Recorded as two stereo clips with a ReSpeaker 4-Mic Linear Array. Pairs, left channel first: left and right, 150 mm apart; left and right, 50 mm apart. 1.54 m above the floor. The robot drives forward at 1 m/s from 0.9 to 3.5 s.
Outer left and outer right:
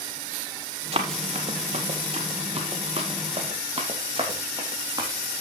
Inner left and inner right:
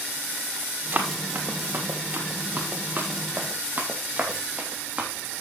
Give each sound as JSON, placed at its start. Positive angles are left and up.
{"t": 0.9, "sound": "running footsteps", "side_deg": -40, "distance_m": 1.9}